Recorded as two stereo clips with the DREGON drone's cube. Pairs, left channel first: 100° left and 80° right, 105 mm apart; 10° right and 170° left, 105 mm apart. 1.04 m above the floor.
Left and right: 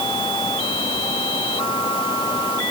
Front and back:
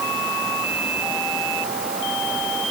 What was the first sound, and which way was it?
Only background noise.